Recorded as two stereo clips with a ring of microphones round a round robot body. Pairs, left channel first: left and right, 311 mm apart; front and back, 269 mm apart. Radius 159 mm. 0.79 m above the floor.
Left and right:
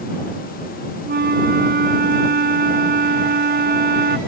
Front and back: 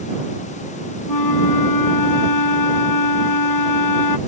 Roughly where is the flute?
Ahead right.